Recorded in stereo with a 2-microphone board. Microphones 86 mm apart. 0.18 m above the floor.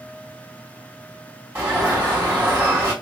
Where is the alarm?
20° right (ahead or behind), 2 m.